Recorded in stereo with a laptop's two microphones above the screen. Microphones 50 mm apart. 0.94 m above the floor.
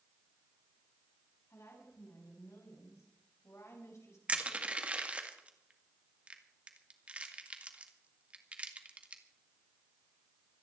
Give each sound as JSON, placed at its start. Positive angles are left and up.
{"t": 1.5, "sound": "a woman speaking", "side_deg": 75, "distance_m": 6.5}
{"t": 4.3, "sound": "crushing", "side_deg": -25, "distance_m": 2.0}